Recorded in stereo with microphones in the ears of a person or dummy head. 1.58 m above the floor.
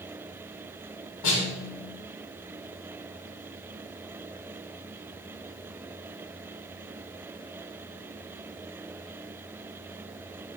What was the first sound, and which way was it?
A snare drum, 80° left.